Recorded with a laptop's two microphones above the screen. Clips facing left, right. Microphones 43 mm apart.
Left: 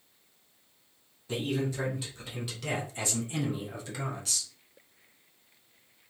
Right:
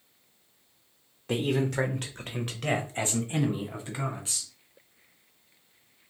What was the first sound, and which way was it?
A man speaking, 70° right (ahead or behind).